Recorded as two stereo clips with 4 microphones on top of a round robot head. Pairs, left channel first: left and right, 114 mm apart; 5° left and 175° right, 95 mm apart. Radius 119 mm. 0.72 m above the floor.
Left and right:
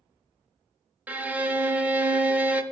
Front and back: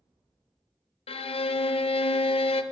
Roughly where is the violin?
Ahead.